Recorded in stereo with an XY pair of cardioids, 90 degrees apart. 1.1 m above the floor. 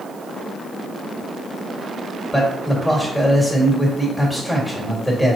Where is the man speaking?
10° left, 1.7 m.